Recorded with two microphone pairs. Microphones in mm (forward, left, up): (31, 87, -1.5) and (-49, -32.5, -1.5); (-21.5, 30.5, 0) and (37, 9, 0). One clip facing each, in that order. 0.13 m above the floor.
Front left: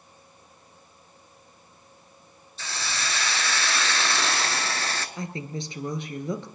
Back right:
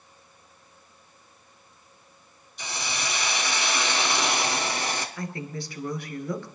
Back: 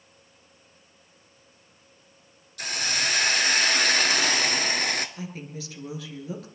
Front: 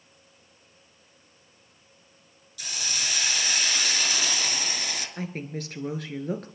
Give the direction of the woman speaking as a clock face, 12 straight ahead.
12 o'clock.